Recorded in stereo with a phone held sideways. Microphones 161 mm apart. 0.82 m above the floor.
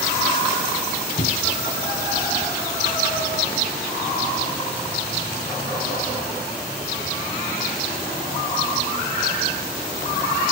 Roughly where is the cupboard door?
Left.